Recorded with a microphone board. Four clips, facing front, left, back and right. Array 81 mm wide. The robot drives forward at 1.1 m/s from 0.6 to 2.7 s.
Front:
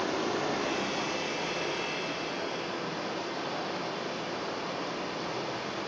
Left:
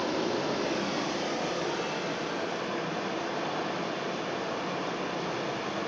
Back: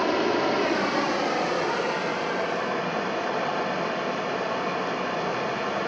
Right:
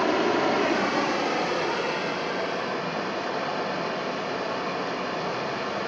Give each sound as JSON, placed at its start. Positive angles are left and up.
{"t": 0.0, "sound": "running water", "azimuth_deg": -115, "distance_m": 1.8}